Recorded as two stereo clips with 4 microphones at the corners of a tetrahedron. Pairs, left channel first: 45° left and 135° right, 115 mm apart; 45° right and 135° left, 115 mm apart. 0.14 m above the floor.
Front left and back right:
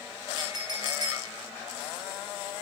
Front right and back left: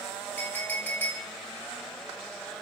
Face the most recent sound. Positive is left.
turn(degrees=-110)